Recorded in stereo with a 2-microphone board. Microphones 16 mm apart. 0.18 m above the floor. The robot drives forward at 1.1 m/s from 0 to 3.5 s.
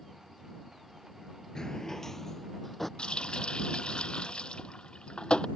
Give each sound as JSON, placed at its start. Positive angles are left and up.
{"t": 1.6, "sound": "a drawer", "side_deg": 50}
{"t": 3.0, "sound": "a running tap", "side_deg": 70}